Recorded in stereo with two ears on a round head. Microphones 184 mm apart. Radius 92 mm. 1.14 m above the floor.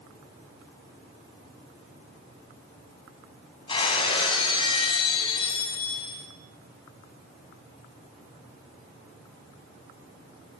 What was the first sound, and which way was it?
Breaking glass, 25° left (ahead or behind).